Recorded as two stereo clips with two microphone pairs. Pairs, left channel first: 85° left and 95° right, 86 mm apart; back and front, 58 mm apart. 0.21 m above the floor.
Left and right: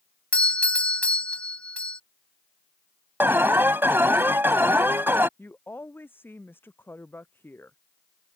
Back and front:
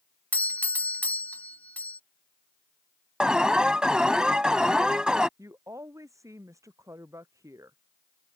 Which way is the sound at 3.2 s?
60° right.